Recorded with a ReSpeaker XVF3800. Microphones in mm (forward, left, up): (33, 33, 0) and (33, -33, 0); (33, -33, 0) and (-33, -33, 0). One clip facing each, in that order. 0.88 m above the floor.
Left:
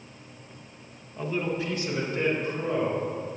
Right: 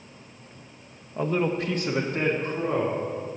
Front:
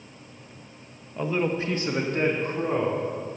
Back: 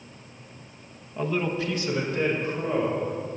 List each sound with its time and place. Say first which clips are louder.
1.2 s a man speaking: right 4 dB, front 1 dB; 90° right, 0.7 m; by 3.0 s 40° right, 3 m